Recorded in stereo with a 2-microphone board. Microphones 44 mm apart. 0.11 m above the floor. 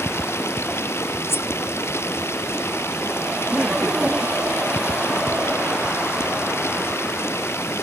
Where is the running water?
65° left (ahead or behind).